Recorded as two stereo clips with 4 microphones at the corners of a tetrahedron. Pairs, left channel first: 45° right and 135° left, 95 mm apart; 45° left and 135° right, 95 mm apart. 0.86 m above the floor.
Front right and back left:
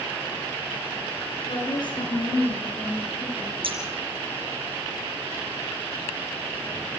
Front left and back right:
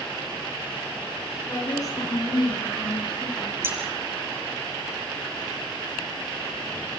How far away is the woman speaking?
About 10 m.